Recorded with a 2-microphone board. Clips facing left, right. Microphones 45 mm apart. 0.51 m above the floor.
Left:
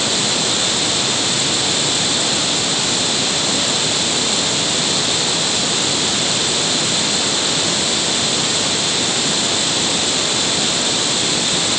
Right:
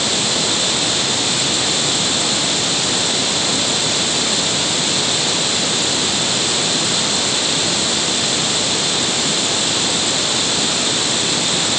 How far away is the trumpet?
No trumpet in this recording.